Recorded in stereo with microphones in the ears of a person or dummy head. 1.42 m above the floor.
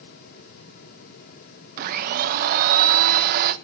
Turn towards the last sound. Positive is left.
turn(degrees=-50)  # may be behind; listen again after turning